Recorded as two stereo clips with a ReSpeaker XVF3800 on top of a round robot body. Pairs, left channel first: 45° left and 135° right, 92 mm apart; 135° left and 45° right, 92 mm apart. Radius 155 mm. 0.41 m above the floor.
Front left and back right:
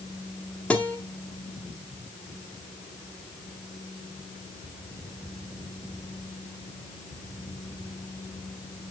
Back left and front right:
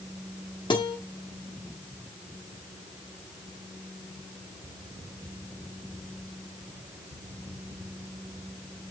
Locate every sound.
0.7 s a guitar: 120° left, 1.6 m